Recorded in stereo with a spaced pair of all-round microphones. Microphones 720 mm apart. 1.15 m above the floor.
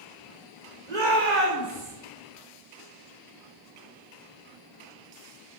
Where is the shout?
75° right (ahead or behind), 4 m.